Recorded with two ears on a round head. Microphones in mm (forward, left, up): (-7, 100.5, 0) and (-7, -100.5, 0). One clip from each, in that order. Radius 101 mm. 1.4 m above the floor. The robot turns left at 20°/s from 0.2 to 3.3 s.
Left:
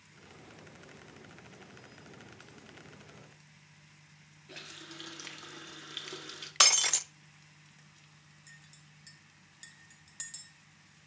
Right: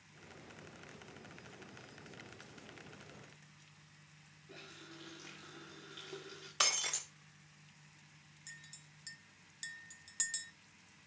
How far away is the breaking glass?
About 0.6 m.